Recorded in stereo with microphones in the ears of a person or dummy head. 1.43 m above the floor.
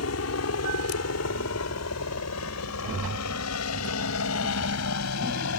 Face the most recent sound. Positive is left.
turn(degrees=85)